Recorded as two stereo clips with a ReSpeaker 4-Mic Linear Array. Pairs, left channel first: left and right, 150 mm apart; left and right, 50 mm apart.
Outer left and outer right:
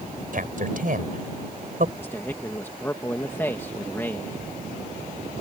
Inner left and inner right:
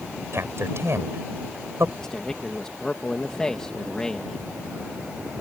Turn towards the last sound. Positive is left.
turn(degrees=15)  # may be behind; listen again after turning